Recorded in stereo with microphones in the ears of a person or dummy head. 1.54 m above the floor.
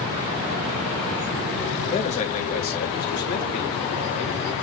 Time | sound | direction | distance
1.9 | a man speaking | 35° left (ahead or behind) | 1.8 m